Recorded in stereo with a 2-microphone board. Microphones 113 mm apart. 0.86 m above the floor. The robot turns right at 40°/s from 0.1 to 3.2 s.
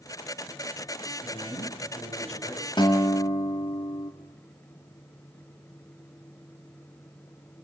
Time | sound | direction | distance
1.2 | a man speaking | 45° left | 9.5 m
2.8 | a guitar | 40° left (ahead or behind) | 2 m